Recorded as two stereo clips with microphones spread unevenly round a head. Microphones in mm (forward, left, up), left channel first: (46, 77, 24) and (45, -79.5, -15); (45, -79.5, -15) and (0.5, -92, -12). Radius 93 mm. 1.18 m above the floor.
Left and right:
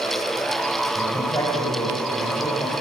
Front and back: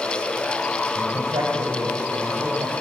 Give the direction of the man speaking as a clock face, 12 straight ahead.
7 o'clock.